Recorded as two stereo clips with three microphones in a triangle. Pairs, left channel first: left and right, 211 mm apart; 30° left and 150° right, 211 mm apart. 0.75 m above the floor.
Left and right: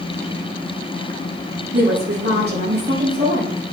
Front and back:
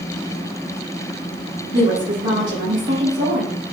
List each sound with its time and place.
1.7 s a woman speaking: 125° right, 5.5 m